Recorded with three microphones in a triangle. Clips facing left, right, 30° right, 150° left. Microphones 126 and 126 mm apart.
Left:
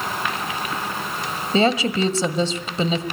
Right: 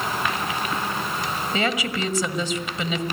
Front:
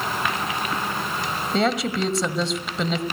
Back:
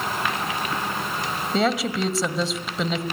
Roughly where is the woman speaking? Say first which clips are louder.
Left 8 dB, even; ahead left.